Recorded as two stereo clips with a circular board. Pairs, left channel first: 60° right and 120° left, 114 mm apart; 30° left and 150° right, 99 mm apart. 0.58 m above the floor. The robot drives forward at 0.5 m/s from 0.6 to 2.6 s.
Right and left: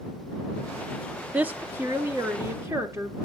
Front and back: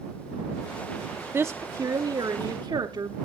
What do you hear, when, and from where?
1.3 s a woman speaking: straight behind, 0.6 m